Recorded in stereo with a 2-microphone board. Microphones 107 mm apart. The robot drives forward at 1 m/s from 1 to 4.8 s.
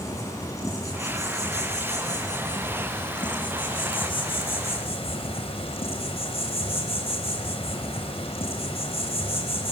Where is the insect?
30° left (ahead or behind), 6 m; by 9.7 s 65° left (ahead or behind), 3.5 m.